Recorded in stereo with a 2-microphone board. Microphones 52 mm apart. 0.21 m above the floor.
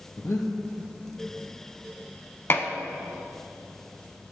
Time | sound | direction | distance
0.2 | breathing | 60° left (ahead or behind) | 2 m
2.5 | dishes clattering | 50° left (ahead or behind) | 1.2 m